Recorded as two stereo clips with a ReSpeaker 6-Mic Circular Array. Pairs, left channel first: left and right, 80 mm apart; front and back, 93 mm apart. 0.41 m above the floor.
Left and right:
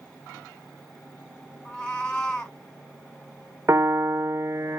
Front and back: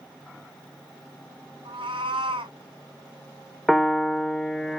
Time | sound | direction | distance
1.6 | a cat meowing | 170° left | 2 m
3.7 | a piano | 90° right | 0.7 m